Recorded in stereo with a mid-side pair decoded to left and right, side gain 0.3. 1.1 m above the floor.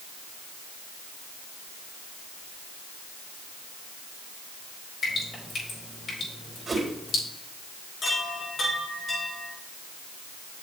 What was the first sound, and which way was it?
Dripping, 65° left.